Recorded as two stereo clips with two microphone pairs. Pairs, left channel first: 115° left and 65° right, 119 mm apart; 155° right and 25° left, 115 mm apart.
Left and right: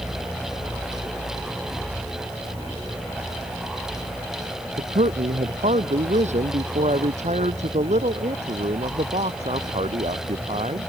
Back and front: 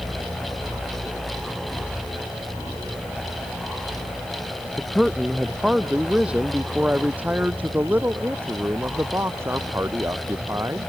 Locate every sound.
4.8 s a man speaking: 60° right; by 10.9 s 40° right